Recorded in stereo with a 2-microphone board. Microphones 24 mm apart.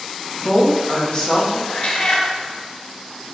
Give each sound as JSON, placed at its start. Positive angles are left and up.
{"t": 0.4, "sound": "a woman speaking", "side_deg": 30, "distance_m": 1.0}
{"t": 1.7, "sound": "a cat meowing", "side_deg": 50, "distance_m": 0.6}